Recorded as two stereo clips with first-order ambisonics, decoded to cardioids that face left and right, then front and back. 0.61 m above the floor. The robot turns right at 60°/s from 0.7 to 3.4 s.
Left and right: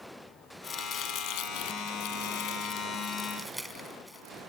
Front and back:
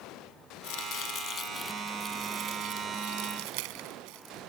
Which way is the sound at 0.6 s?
20° left.